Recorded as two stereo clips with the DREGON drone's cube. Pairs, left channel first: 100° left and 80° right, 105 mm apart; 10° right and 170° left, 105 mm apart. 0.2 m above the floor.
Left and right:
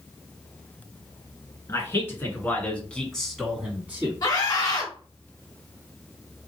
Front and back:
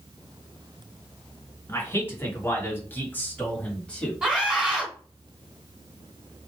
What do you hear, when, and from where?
1.7 s a man speaking: 50° left, 2.0 m; by 4.2 s 80° right, 1.4 m
4.2 s a scream: 90° left, 1.8 m